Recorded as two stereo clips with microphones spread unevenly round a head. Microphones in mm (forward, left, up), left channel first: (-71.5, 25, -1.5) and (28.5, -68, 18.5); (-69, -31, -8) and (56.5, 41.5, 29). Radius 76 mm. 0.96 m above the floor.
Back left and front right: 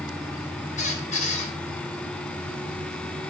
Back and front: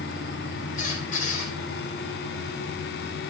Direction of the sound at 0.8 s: 175° left.